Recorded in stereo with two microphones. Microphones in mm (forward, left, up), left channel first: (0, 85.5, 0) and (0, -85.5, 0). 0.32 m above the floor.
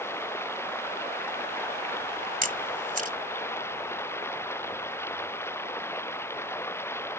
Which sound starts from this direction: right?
A camera shutter, at 2.4 s.